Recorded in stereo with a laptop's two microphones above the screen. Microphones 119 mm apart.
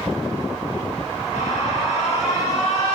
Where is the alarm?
65° left (ahead or behind), 7 m.